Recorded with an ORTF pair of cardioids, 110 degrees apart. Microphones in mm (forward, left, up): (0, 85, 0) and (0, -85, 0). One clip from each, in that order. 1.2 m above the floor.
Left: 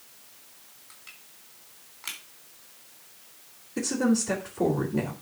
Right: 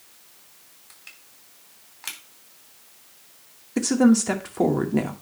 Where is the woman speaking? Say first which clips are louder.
Right 7 dB; 70° right, 2.5 m.